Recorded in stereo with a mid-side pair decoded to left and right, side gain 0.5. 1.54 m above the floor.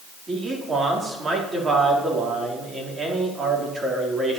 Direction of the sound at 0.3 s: 30° right.